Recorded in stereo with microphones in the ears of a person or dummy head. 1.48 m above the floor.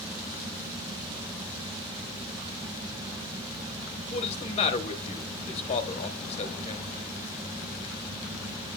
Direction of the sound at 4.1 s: 35° left (ahead or behind).